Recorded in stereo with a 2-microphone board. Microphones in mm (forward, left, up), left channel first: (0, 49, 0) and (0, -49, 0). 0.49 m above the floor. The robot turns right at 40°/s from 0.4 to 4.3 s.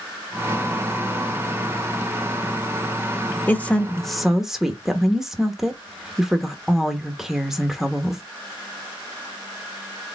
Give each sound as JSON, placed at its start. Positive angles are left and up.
{"t": 3.5, "sound": "a woman speaking", "azimuth_deg": 150, "distance_m": 0.9}